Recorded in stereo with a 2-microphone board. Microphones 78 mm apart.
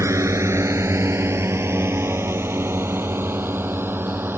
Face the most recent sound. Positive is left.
turn(degrees=-30)  # may be behind; listen again after turning